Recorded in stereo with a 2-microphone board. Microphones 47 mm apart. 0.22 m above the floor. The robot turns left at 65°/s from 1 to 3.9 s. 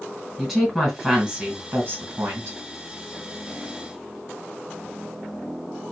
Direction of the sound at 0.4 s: Straight ahead.